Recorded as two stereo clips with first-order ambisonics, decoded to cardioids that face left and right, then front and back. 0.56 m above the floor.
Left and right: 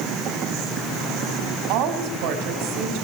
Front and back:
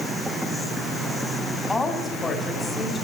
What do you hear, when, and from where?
1.7 s a woman speaking: 80° right, 5 m